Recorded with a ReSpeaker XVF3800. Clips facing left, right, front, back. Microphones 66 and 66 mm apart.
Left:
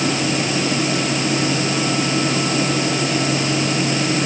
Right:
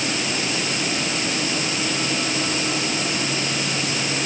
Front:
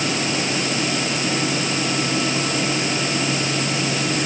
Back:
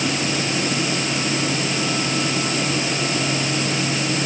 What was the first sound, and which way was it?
Only background noise.